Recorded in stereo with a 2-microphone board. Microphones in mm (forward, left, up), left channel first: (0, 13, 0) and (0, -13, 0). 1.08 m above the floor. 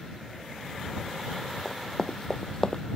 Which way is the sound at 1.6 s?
10° left (ahead or behind).